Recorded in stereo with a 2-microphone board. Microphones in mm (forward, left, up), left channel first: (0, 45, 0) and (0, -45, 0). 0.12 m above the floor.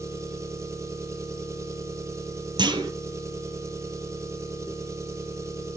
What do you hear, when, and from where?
0.0 s an engine running: 30° right (ahead or behind), 2.5 m
2.6 s a clunk: 55° right (ahead or behind), 2 m